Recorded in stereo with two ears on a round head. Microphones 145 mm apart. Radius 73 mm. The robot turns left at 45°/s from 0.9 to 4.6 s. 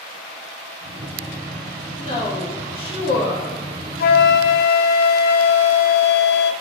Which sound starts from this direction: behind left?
A woman speaking, at 2.0 s.